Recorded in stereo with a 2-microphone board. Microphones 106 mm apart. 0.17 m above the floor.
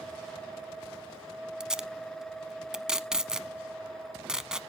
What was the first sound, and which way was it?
Tape being pulled, 5° right (ahead or behind).